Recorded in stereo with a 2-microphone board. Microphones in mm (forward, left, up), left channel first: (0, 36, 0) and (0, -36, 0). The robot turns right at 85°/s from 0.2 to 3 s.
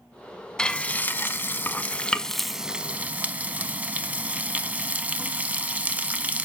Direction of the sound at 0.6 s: 10° left (ahead or behind).